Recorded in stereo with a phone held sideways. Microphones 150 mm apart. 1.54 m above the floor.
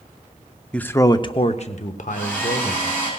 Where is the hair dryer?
10° left (ahead or behind), 6.5 m.